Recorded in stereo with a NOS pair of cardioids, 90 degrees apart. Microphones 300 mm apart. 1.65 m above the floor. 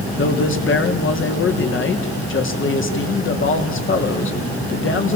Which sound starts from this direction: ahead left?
A man speaking, at 0.2 s.